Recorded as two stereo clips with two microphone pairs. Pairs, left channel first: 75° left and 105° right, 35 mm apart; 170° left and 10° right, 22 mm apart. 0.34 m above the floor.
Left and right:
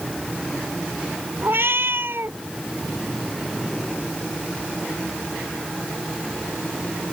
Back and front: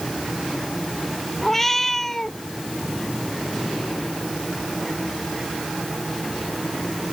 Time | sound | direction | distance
1.4 | a cat meowing | 115° right | ?